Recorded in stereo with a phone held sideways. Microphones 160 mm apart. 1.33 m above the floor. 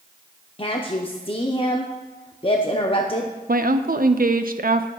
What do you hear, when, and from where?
0.6 s a woman speaking: 35° left (ahead or behind), 0.7 m
3.5 s a woman speaking: 65° right (ahead or behind), 0.6 m